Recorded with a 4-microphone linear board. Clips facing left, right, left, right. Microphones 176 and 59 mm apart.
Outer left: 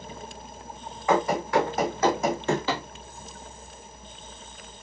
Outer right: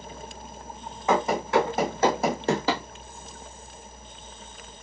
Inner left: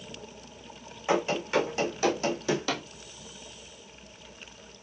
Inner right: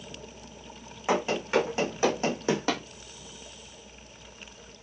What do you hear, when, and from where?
1.1 s running footsteps: 20° right (ahead or behind), 3 m; by 2.8 s 40° right (ahead or behind), 1.8 m